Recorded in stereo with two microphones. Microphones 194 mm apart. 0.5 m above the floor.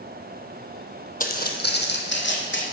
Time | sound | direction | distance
1.2 | footsteps | 45° left (ahead or behind) | 1.1 m